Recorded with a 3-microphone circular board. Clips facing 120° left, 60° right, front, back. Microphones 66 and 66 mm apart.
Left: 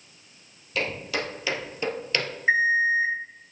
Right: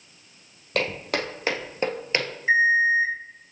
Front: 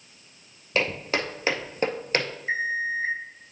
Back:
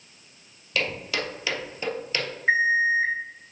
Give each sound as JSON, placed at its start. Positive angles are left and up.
{"t": 0.8, "sound": "footsteps", "azimuth_deg": -50, "distance_m": 1.9}
{"t": 2.5, "sound": "an alarm clock", "azimuth_deg": 175, "distance_m": 3.5}